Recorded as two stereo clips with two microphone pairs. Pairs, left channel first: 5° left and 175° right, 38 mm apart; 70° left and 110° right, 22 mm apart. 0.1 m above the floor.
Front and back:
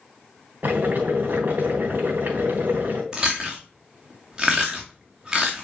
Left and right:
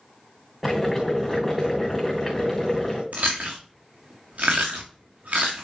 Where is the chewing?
100° right, 2.5 m.